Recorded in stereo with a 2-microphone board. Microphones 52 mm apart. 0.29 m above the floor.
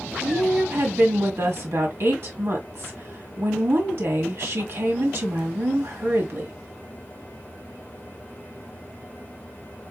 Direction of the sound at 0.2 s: 55° right (ahead or behind).